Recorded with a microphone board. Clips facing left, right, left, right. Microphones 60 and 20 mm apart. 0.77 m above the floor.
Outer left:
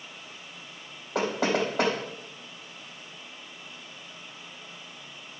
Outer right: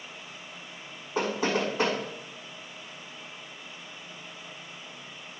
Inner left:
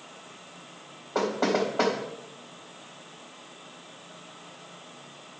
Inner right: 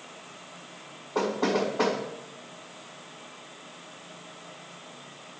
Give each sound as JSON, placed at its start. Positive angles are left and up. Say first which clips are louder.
{"t": 1.1, "sound": "knocking", "louder": "outer left 1 dB, inner left 1 dB", "side_deg": 65, "distance_m": 3.5}